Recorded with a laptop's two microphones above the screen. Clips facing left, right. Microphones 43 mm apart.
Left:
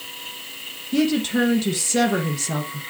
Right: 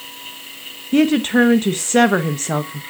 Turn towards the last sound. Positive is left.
turn(degrees=-40)  # may be behind; listen again after turning